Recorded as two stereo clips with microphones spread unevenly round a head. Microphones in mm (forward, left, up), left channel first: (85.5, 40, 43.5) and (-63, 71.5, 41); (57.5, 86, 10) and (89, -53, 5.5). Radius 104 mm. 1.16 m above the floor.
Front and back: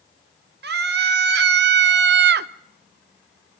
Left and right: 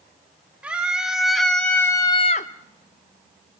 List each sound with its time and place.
0.6 s a scream: 160° right, 1.6 m; by 2.5 s 155° left, 0.5 m